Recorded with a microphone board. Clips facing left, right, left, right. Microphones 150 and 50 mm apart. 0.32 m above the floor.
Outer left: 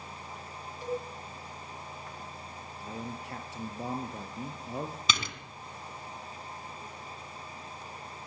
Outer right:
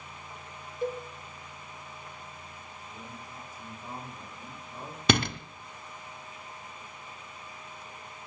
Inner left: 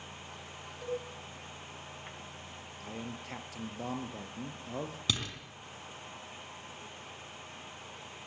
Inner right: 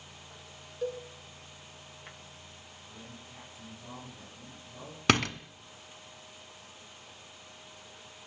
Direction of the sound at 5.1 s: 60° right (ahead or behind).